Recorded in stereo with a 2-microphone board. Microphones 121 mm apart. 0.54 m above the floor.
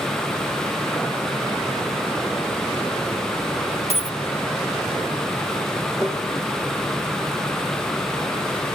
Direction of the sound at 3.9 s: 70° right (ahead or behind).